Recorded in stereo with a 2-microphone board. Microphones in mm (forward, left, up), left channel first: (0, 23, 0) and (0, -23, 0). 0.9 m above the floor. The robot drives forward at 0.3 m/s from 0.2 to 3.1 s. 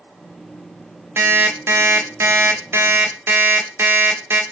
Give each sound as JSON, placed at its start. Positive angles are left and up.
{"t": 1.2, "sound": "an alarm clock", "side_deg": -65, "distance_m": 0.8}